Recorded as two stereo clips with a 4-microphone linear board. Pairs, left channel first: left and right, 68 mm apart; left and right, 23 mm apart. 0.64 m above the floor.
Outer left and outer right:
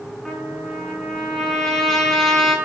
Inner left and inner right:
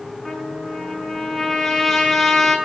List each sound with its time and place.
0.2 s a trumpet: 5° left (ahead or behind), 7 m